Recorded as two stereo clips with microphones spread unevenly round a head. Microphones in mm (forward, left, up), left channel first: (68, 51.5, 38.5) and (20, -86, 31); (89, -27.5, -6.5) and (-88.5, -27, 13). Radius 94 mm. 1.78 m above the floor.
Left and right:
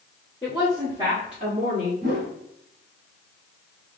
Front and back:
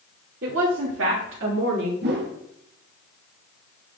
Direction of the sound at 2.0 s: 155° right.